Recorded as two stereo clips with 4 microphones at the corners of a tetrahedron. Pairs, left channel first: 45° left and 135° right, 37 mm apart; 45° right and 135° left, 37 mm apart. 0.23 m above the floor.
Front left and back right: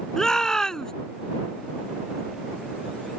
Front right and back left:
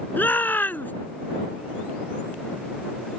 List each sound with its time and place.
0.2 s a shout: 30° right